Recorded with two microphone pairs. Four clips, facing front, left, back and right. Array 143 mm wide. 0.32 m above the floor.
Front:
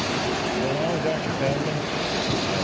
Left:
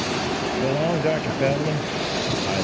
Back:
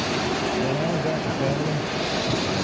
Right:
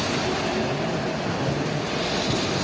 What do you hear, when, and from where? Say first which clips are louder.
0.6 s a man speaking: left 4 dB, even; 65° left